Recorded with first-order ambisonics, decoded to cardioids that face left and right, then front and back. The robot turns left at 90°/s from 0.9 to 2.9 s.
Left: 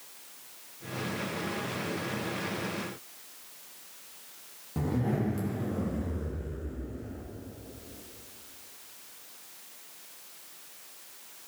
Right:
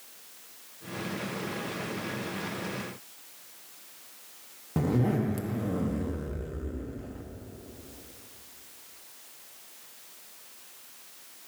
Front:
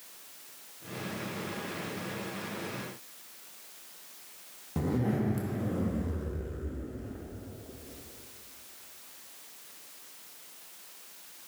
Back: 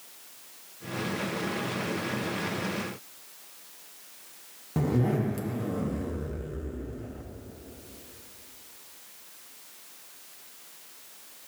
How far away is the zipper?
About 0.9 m.